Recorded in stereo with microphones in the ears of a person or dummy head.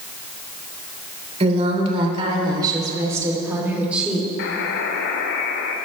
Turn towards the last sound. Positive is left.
turn(degrees=65)  # may be behind; listen again after turning